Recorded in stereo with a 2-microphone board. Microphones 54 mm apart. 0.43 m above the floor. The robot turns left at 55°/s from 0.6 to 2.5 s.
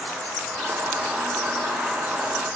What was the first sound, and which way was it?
Only background noise.